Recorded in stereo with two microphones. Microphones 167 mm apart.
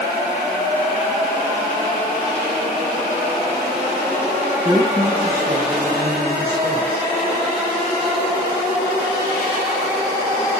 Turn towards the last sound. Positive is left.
turn(degrees=-35)  # may be behind; listen again after turning